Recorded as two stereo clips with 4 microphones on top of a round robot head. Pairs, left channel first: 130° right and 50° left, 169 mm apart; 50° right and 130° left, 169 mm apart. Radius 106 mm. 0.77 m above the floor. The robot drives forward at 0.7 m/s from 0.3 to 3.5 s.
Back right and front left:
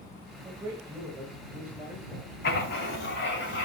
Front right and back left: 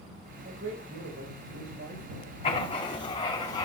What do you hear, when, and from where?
0.4 s a man speaking: 120° left, 5 m; by 2.3 s 135° left, 6 m
2.4 s writing: 110° right, 3.5 m; by 3.7 s 120° right, 3.5 m